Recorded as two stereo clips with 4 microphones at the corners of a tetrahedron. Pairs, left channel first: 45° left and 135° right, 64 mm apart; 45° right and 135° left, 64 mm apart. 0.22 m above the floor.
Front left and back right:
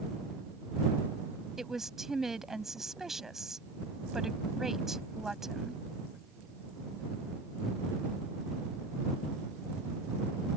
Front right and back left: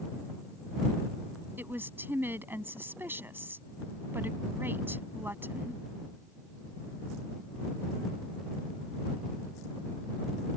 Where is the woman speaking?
145° left.